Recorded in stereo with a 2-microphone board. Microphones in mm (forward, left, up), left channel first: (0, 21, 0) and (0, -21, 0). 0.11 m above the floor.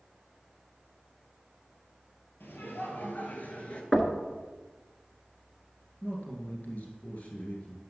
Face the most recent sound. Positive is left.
turn(degrees=35)  # may be behind; listen again after turning